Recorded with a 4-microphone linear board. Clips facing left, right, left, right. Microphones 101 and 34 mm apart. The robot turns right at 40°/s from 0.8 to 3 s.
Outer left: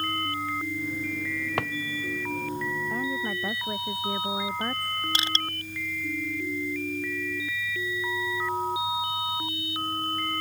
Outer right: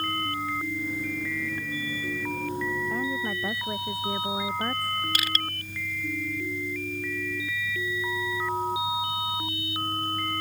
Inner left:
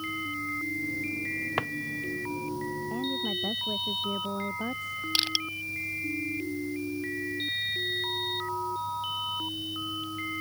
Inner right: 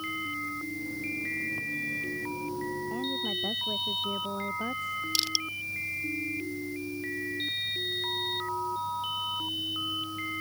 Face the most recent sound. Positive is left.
turn(degrees=25)  # may be behind; listen again after turning